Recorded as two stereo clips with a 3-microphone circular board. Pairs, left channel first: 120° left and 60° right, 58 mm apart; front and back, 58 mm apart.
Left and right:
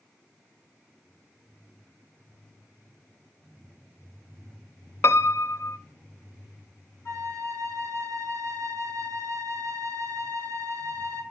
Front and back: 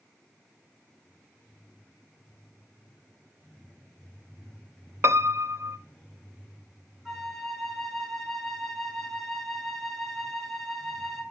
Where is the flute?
90° left, 6 m.